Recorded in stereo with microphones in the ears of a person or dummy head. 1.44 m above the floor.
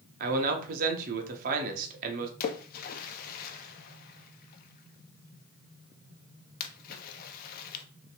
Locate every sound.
0.2 s a man speaking: 50° right (ahead or behind), 1.0 m
2.4 s a splash: 55° left (ahead or behind), 0.6 m